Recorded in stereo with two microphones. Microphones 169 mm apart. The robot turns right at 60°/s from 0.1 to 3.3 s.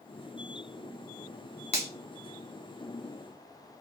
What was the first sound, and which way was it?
A finger snap, 35° left (ahead or behind).